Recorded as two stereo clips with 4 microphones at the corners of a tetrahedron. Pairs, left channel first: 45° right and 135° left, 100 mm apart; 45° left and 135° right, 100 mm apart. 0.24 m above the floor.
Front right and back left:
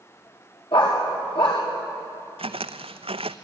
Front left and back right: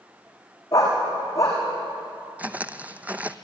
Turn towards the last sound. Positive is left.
turn(degrees=150)